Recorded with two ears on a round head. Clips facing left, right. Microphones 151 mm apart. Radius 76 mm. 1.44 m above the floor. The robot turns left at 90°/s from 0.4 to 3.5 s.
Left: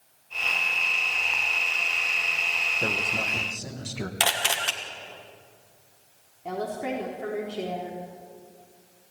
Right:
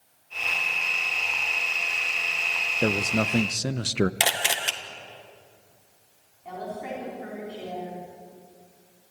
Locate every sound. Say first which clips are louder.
2.8 s a man speaking: right 8 dB; 30° right, 0.8 m; by 4.1 s 95° right, 0.8 m
4.2 s a camera shutter: even; 20° right (ahead or behind), 1.7 m
6.5 s a woman speaking: left 4 dB; 55° left (ahead or behind), 4 m